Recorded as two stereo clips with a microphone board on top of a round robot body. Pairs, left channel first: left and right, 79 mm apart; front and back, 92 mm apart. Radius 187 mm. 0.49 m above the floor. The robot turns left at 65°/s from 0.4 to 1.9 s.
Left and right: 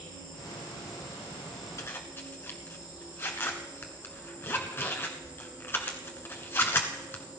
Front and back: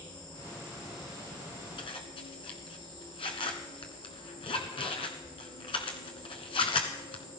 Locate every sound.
0.0 s an insect: 80° left, 8 m; by 7.4 s 20° right, 8 m
1.8 s a zipper: 35° left, 1.1 m; by 7.2 s 30° left, 1.1 m